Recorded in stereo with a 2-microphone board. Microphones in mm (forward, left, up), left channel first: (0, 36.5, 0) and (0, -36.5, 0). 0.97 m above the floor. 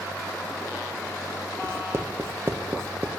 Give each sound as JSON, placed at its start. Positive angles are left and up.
{"t": 1.6, "sound": "writing", "side_deg": -35, "distance_m": 0.7}